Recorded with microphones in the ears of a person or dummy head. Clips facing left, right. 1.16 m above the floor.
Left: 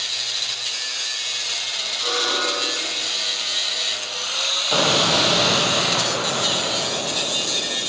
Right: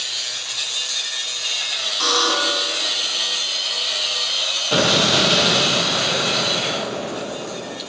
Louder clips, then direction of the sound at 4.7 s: Right 2 dB; 25° right (ahead or behind).